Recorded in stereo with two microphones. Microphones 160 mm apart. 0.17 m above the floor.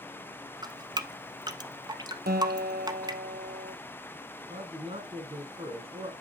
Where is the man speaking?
40° right (ahead or behind), 2 m.